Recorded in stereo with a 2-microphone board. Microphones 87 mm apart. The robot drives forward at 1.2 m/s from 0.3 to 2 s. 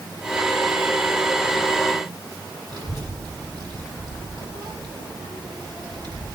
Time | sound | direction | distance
2.7 | a child speaking | 55° right (ahead or behind) | 4.5 m